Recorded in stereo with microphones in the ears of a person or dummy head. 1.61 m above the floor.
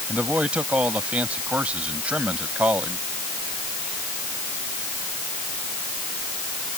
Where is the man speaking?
10° right (ahead or behind).